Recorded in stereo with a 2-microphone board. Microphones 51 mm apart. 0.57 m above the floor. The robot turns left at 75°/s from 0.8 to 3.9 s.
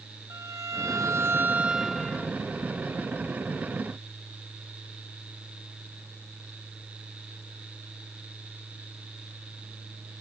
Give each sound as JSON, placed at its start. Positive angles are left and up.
{"t": 0.3, "sound": "a violin", "azimuth_deg": -90, "distance_m": 0.7}